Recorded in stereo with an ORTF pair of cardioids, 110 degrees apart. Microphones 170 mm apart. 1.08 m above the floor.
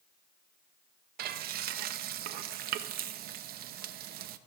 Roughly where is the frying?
Ahead right.